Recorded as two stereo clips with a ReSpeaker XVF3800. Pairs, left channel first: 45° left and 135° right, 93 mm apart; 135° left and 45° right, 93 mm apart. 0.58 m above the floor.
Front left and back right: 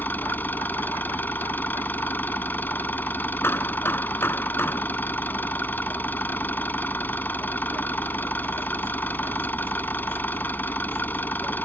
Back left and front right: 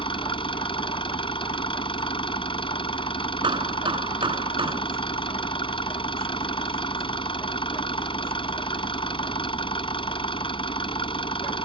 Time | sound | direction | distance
0.0 | an engine running | 115° left | ?
3.4 | hammering | 20° right | ?